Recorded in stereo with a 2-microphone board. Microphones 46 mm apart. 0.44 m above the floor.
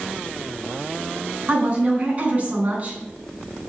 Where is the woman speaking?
35° right (ahead or behind), 3.5 m.